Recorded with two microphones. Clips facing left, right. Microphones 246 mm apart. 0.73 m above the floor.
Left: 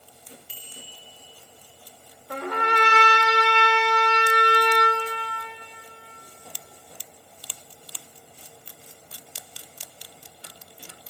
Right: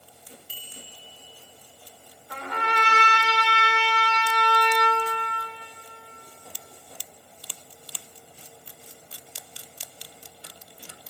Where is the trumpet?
60° left (ahead or behind), 3 m.